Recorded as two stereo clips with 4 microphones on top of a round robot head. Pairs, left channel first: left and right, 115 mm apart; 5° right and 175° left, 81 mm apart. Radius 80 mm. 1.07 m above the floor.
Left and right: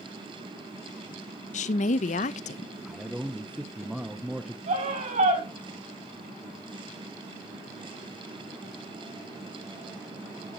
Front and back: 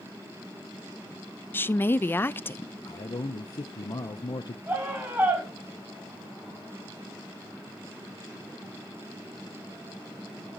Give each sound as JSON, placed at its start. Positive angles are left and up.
{"t": 1.5, "sound": "a woman speaking", "azimuth_deg": 60, "distance_m": 0.5}
{"t": 2.9, "sound": "a man speaking", "azimuth_deg": -5, "distance_m": 0.7}
{"t": 4.7, "sound": "a scream", "azimuth_deg": -110, "distance_m": 6.0}